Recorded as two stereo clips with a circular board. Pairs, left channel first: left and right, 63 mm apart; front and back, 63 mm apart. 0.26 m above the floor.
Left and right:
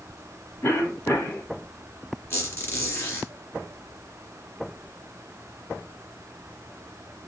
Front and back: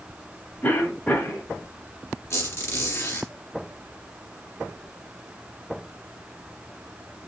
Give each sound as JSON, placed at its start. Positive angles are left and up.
{"t": 0.6, "sound": "a cough", "azimuth_deg": 55, "distance_m": 2.0}
{"t": 2.3, "sound": "a squeak", "azimuth_deg": 40, "distance_m": 1.8}